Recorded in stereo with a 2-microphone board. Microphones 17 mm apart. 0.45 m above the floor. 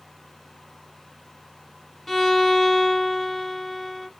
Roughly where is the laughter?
I don't hear laughter.